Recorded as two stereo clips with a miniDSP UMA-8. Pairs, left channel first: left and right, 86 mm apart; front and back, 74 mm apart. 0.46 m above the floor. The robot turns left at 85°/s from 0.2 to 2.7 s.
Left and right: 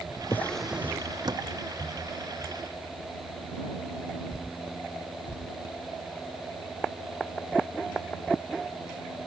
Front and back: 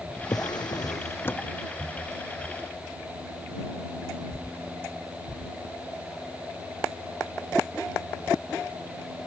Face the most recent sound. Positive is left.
turn(degrees=180)